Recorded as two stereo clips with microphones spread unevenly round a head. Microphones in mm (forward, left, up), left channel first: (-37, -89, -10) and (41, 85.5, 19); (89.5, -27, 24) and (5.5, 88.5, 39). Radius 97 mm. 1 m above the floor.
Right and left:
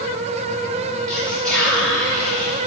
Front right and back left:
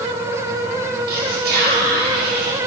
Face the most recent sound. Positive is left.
turn(degrees=145)